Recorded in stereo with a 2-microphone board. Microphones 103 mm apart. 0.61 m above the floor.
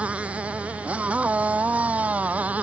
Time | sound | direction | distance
0.0 | a motorcycle | 15° right (ahead or behind) | ?